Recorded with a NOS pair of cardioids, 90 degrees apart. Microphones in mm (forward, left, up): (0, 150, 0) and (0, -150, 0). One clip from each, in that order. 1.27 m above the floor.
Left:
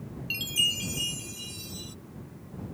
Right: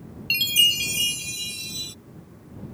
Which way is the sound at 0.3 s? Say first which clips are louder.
Right 8 dB; 50° right.